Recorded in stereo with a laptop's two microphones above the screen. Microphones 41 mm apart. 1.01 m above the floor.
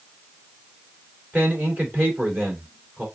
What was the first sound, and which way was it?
A man speaking, 40° right (ahead or behind).